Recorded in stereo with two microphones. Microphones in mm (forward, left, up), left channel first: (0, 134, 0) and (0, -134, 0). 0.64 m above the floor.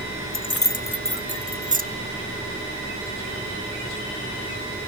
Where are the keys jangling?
50° left (ahead or behind), 0.9 m; by 1.8 s 35° right (ahead or behind), 0.9 m.